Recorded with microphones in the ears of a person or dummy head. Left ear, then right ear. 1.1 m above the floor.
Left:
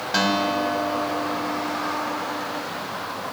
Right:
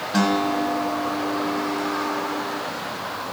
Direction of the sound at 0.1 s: 55° left (ahead or behind).